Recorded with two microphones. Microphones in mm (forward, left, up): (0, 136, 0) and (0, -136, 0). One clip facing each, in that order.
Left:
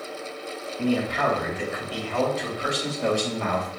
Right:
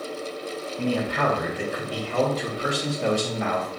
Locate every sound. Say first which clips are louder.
0.8 s a man speaking: left 1 dB; 60° right (ahead or behind), 1.8 m; by 3.7 s 10° right (ahead or behind), 1.0 m